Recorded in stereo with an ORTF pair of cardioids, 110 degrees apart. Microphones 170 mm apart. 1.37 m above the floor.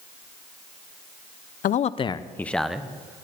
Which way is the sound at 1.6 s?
55° left.